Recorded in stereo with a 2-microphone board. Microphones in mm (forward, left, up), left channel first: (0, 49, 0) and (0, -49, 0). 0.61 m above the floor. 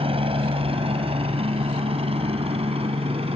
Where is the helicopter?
70° right (ahead or behind); by 3.4 s 75° right (ahead or behind).